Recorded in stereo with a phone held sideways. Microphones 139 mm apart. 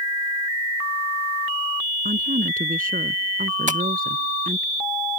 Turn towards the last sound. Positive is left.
turn(degrees=-60)  # may be behind; listen again after turning